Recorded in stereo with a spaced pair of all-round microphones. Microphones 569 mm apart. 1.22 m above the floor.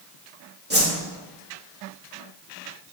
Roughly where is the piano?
I don't hear a piano.